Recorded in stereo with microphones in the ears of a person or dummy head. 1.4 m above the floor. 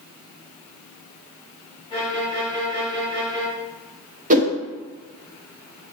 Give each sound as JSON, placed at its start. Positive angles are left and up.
{"t": 1.9, "sound": "a violin", "side_deg": 30, "distance_m": 1.6}
{"t": 4.3, "sound": "a whoosh", "side_deg": -40, "distance_m": 0.9}